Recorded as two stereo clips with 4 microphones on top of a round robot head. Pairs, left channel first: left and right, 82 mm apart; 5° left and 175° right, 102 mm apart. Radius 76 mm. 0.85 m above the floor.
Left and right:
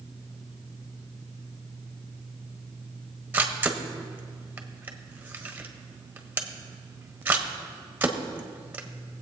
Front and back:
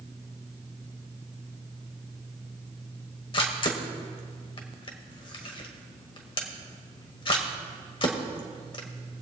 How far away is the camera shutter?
About 1.4 m.